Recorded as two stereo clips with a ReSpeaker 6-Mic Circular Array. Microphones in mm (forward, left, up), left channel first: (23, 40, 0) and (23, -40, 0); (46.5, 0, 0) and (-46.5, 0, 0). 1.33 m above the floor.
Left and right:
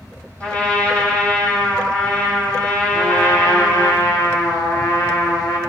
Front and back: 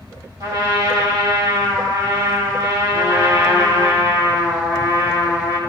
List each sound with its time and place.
0.4 s a trumpet: 160° left, 2.0 m
2.9 s a trumpet: 125° left, 1.2 m